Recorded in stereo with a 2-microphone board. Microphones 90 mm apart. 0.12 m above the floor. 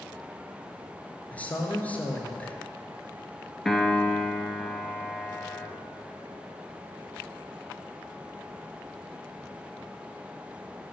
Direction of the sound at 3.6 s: 5° left (ahead or behind).